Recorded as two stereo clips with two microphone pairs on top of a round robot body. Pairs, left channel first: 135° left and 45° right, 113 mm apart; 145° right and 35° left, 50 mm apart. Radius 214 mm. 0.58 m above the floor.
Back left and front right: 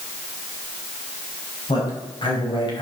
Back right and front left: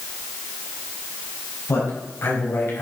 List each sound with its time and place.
1.7 s a man speaking: 175° right, 4.5 m; by 2.8 s straight behind, 4 m